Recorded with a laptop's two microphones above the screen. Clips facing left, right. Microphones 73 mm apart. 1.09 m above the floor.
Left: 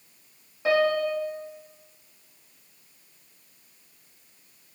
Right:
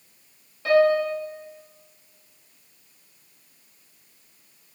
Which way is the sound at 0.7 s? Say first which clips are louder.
Right 4 dB; 15° left (ahead or behind).